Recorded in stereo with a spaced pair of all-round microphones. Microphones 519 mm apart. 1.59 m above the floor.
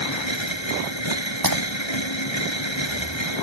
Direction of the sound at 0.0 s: 60° left (ahead or behind).